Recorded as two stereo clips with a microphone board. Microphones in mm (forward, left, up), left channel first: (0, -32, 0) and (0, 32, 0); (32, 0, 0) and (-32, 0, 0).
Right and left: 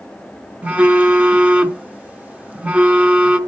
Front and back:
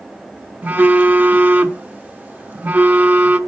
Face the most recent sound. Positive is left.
turn(degrees=140)